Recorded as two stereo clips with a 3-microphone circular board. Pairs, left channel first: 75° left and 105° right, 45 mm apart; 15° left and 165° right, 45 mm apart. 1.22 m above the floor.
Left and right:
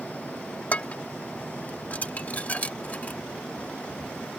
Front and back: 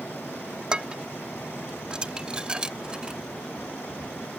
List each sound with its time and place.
0.7 s dishes clattering: 130° left